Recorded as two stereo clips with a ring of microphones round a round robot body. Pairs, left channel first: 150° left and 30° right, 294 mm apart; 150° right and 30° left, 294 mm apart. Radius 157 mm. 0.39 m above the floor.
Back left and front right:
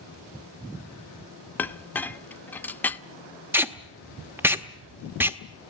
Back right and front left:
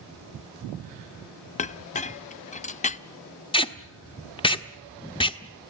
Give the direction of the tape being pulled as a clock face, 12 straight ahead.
3 o'clock.